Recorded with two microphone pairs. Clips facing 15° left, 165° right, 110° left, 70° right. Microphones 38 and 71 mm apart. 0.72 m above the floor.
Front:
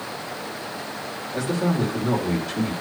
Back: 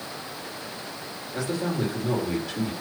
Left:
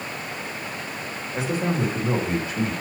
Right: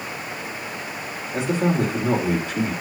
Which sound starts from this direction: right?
A man speaking, at 1.3 s.